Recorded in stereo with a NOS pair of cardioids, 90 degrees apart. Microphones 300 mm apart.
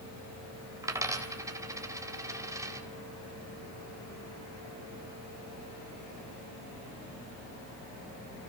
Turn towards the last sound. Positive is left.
turn(degrees=-10)